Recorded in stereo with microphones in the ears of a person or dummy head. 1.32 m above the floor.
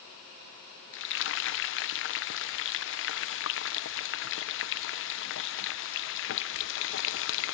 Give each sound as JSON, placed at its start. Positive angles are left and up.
{"t": 0.9, "sound": "frying", "side_deg": 65, "distance_m": 0.9}